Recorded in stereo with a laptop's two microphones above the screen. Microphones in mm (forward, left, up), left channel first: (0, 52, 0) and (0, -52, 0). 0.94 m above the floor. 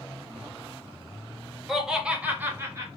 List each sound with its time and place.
1.7 s laughter: centre (ahead or behind), 1.0 m; by 2.9 s 25° right (ahead or behind), 0.9 m